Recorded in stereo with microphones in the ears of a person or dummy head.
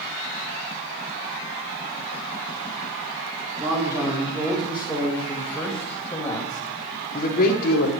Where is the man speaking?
15° right (ahead or behind), 4 m; by 7.9 s 60° left (ahead or behind), 1.7 m.